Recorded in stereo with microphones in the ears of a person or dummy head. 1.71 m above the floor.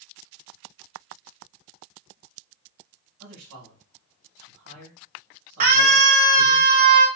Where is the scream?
45° right (ahead or behind), 0.9 m.